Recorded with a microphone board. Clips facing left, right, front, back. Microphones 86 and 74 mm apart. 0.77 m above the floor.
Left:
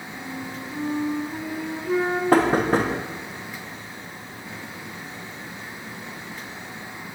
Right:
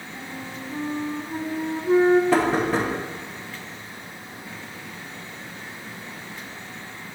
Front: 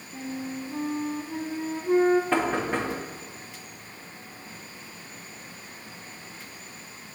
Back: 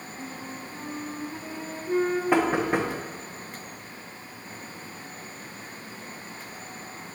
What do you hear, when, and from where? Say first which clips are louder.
0.1 s a flute: left 2 dB, front 7 dB; 30° right, 0.6 m
2.3 s knocking: left 2 dB, back 3 dB; 105° left, 0.7 m